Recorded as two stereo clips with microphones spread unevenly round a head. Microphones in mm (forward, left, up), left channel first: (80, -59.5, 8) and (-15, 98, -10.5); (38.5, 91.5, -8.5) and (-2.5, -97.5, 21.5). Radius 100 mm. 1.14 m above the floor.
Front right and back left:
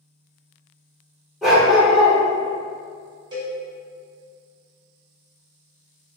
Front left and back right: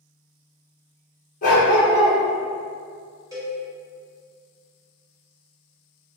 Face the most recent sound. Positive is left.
turn(degrees=-170)